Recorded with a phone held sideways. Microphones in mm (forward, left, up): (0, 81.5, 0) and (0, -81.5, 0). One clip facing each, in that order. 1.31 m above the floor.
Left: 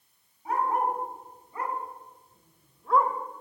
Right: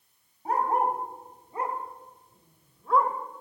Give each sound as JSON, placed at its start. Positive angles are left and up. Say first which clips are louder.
{"t": 0.5, "sound": "a dog barking", "louder": "right 1 dB", "side_deg": -45, "distance_m": 2.0}